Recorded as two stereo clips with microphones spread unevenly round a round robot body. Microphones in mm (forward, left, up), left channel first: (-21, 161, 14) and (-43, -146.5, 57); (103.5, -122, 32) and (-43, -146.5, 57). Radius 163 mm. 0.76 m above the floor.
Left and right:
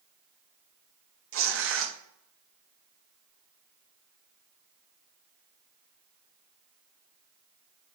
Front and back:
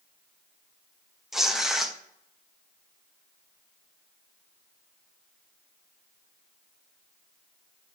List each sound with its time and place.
1.3 s tearing paper: 70° right, 1.0 m